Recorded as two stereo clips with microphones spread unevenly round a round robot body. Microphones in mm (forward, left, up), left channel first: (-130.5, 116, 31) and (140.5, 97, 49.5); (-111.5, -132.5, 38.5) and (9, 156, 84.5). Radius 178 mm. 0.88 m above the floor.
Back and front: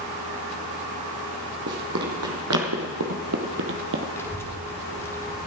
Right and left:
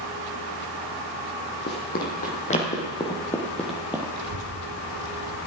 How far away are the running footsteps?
About 1.9 m.